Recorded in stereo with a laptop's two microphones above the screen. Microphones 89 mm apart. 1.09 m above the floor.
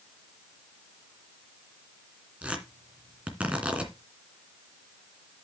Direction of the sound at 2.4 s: 15° right (ahead or behind).